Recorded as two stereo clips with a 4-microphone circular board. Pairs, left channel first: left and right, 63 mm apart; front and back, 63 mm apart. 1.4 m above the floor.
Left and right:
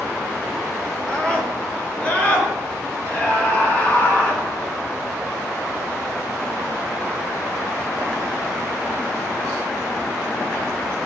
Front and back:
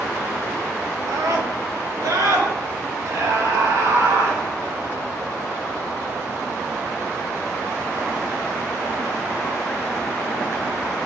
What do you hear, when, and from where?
1.1 s a scream: 160° left, 4.5 m; by 4.4 s 150° left, 7.5 m